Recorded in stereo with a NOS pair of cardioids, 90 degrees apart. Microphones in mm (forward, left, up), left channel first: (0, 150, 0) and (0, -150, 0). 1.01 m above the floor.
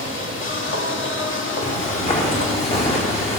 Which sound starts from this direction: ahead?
Footsteps, at 1.6 s.